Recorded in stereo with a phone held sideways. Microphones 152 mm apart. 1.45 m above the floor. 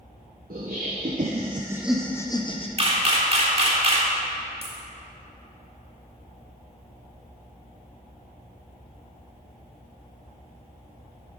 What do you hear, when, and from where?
0.5 s laughter: 75° right (ahead or behind), 1.1 m; by 2.7 s 40° left (ahead or behind), 0.8 m
2.8 s a camera shutter: 40° right (ahead or behind), 1.3 m
4.6 s a dropped coin: 40° right (ahead or behind), 1.1 m